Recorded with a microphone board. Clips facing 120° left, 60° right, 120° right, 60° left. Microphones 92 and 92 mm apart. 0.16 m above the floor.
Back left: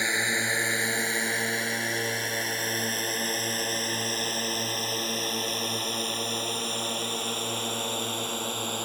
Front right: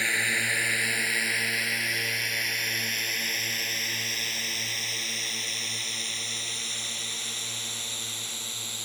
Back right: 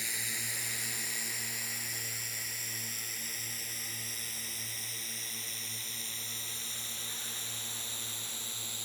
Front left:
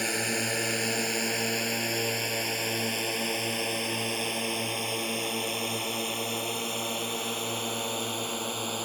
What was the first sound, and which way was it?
A drone, 55° left.